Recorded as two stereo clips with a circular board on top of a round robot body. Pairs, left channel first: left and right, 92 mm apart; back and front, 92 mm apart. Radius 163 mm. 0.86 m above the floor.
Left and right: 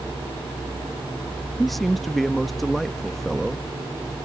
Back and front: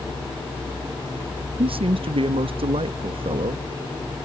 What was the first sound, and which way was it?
A man speaking, straight ahead.